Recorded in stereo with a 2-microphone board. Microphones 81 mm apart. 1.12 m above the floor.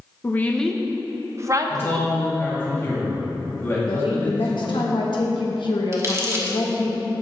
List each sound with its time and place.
0.2 s a woman speaking: 30° left (ahead or behind), 0.7 m; by 2.1 s 55° right (ahead or behind), 1.0 m
1.7 s a man speaking: 30° left (ahead or behind), 2.5 m
3.9 s a woman speaking: 70° left (ahead or behind), 1.4 m
5.9 s crumpling: 35° right (ahead or behind), 1.3 m